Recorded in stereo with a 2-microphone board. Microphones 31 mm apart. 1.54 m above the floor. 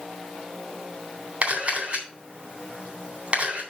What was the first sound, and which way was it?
A camera shutter, 40° right (ahead or behind).